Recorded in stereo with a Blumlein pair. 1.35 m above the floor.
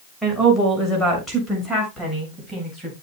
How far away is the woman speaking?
About 6 m.